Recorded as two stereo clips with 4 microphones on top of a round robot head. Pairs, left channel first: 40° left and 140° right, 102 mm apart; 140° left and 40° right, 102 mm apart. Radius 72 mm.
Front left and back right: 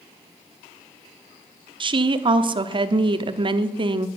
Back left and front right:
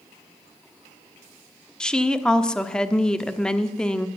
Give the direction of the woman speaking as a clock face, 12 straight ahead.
5 o'clock.